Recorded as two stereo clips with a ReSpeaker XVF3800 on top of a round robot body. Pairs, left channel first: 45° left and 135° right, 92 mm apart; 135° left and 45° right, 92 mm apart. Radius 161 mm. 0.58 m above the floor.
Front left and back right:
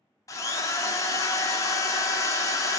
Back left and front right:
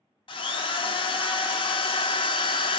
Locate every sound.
0.3 s a drill: 100° left, 0.6 m